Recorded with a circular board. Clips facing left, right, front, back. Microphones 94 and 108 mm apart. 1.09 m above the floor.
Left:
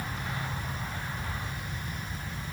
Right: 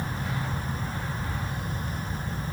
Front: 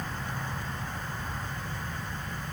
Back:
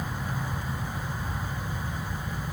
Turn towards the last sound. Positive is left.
No sound to turn to.